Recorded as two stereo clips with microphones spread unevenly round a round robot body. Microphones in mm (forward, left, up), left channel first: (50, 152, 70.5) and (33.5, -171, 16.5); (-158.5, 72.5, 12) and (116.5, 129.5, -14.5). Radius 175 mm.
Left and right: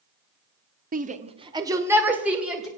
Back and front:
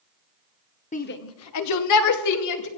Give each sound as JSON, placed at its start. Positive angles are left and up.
{"t": 0.9, "sound": "a shout", "azimuth_deg": -110, "distance_m": 1.1}